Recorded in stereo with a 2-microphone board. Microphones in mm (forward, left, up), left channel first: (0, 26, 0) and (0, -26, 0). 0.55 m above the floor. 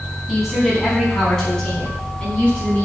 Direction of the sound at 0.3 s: 5° right (ahead or behind).